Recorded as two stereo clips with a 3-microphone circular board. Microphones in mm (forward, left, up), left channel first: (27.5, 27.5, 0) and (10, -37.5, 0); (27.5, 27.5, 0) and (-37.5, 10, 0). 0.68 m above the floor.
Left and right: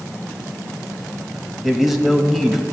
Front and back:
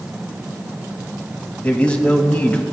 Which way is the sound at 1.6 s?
25° right.